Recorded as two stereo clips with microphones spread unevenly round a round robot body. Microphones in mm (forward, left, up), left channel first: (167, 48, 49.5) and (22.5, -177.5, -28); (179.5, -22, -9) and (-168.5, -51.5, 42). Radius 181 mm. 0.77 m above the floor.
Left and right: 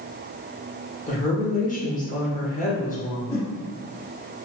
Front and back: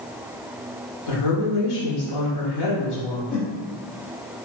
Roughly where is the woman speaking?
Ahead.